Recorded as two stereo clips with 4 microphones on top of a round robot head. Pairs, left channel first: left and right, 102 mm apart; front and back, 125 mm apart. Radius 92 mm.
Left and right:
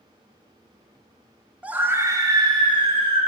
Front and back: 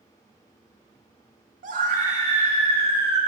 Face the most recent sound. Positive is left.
turn(degrees=-120)